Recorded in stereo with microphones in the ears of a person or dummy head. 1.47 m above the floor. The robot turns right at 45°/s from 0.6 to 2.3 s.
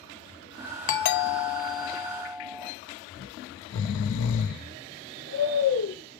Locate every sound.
0.9 s a doorbell: 120° left, 0.5 m; by 2.7 s 175° right, 0.5 m
3.2 s snoring: 70° left (ahead or behind), 0.8 m